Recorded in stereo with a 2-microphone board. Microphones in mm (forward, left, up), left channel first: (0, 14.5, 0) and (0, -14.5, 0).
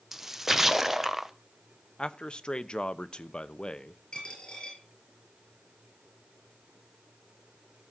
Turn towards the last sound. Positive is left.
turn(degrees=35)  # may be behind; listen again after turning